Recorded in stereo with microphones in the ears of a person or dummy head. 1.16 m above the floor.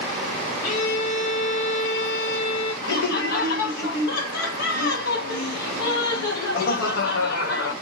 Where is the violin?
35° left (ahead or behind), 0.7 m.